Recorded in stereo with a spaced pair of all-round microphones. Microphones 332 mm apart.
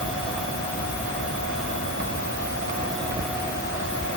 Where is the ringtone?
I don't hear a ringtone.